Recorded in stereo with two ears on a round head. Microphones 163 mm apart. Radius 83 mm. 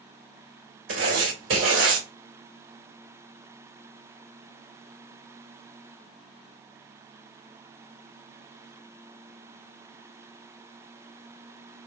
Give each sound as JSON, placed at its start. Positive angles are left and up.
{"t": 0.9, "sound": "writing", "side_deg": -75, "distance_m": 2.0}